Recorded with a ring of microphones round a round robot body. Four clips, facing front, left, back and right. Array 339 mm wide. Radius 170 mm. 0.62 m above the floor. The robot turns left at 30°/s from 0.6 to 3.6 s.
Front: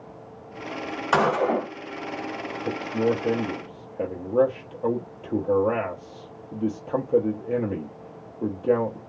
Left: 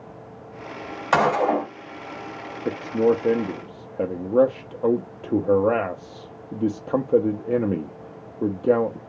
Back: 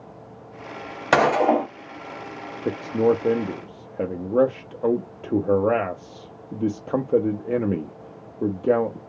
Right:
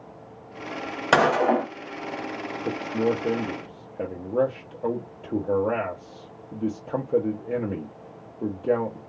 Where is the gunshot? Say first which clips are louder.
Even, back 4 dB; 140° right, 1.2 m; by 1.7 s 160° right, 1.2 m.